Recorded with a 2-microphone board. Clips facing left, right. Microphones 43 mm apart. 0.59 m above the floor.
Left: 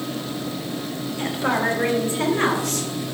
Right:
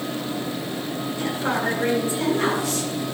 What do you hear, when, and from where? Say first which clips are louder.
1.2 s a woman speaking: left 3 dB; 40° left (ahead or behind), 3 m; by 2.9 s 60° left (ahead or behind), 2.5 m